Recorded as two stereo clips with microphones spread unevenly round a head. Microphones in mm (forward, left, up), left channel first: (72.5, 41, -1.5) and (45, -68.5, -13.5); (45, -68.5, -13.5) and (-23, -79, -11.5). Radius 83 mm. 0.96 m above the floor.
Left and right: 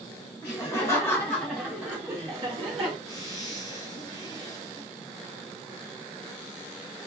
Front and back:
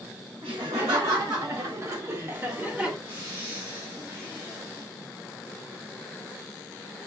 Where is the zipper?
140° left, 1.7 m.